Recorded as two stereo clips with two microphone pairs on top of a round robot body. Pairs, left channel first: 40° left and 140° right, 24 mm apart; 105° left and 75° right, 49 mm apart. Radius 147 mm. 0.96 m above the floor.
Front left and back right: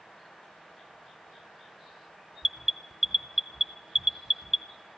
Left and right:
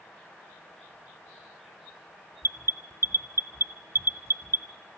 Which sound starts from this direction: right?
An alarm, at 2.4 s.